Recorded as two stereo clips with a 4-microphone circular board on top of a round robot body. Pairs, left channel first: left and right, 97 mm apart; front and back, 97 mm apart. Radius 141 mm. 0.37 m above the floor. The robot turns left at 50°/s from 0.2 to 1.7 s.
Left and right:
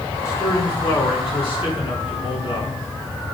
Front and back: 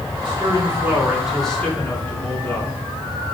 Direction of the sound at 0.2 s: 145° left.